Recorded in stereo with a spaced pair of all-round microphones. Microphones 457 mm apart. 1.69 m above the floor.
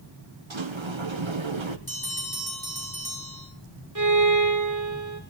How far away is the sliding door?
About 1.3 m.